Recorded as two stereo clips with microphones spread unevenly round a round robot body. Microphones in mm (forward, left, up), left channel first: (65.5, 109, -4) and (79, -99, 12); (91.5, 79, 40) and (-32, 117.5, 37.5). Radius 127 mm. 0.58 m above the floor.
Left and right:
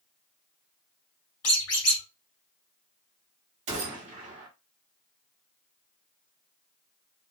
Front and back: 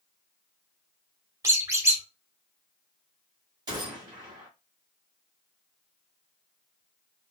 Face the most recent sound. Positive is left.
turn(degrees=-145)